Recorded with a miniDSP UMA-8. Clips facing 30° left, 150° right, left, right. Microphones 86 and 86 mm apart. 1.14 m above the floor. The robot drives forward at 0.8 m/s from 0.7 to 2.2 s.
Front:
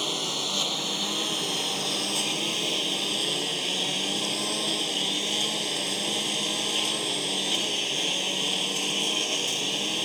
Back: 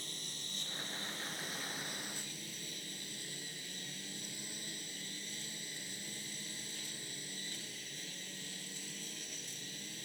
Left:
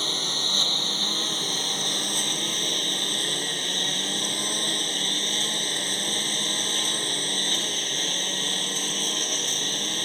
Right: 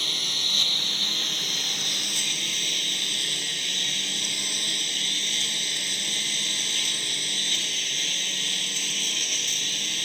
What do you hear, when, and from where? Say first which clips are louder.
0.0 s a lawn mower: front 20 dB, left 4 dB; 30° left; by 10.1 s 35° left